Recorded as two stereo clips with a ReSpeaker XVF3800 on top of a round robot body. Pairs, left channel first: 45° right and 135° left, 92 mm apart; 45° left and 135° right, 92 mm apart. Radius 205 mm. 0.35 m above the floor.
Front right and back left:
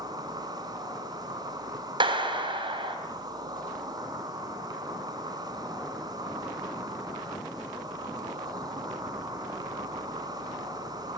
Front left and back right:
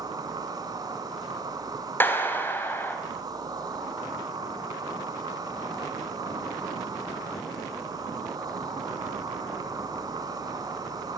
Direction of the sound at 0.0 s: Straight behind.